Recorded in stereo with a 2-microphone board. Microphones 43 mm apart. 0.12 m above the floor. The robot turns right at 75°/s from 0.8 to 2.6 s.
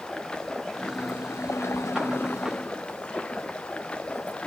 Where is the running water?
20° left, 1.9 m; by 4.5 s 155° left, 1.9 m.